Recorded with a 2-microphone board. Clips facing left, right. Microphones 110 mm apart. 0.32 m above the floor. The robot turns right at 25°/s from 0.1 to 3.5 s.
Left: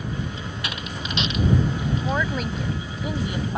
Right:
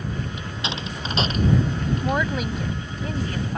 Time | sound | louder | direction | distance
0.4 | a door slam | right 2 dB | 15° right (ahead or behind) | ?
2.0 | a woman speaking | right 3 dB | 15° right | ?